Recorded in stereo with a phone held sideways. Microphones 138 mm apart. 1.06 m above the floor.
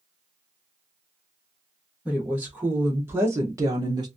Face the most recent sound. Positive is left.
turn(degrees=-35)  # may be behind; listen again after turning